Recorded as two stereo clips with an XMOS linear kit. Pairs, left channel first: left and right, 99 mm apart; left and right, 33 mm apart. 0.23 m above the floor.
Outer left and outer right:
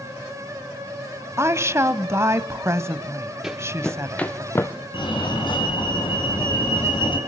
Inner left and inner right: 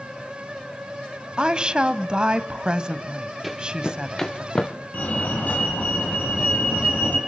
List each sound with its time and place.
1.4 s a woman speaking: 30° right (ahead or behind), 1.0 m
3.4 s running footsteps: 5° right (ahead or behind), 1.4 m; by 4.7 s 30° left (ahead or behind), 1.3 m
4.9 s a fire alarm: 55° left (ahead or behind), 4 m